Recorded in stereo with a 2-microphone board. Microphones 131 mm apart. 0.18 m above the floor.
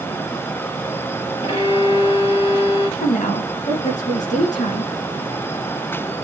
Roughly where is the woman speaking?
Left.